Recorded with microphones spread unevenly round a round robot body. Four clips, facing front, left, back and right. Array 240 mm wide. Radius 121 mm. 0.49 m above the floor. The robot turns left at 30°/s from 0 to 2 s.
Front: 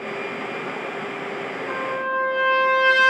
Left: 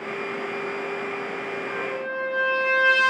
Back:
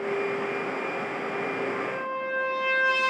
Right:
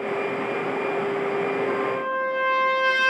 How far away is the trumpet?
About 2.5 m.